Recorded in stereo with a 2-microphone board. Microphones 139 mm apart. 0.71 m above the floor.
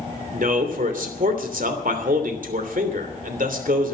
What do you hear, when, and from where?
0.3 s a man speaking: 70° right (ahead or behind), 3 m